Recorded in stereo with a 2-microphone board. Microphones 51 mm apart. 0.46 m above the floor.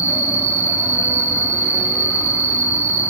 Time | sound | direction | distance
0.0 | an insect | 65° left (ahead or behind) | 5 m